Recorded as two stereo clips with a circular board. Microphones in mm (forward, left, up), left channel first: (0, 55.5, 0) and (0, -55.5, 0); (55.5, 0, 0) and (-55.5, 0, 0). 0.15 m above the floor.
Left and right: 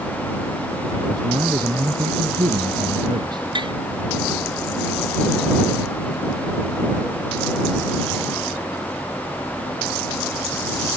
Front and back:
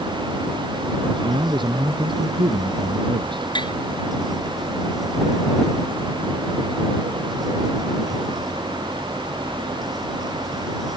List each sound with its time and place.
1.1 s a man speaking: 140° right
3.5 s tapping: 45° right